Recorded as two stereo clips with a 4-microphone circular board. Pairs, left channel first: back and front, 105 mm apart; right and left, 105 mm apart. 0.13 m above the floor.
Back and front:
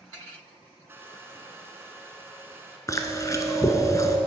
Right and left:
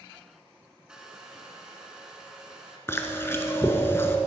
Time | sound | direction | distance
0.9 | a hair dryer | 20° left | 0.9 m
2.9 | chewing | 145° right | 0.7 m